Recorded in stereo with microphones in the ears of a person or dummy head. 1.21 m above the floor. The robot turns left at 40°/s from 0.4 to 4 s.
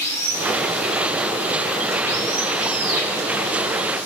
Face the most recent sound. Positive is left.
turn(degrees=-95)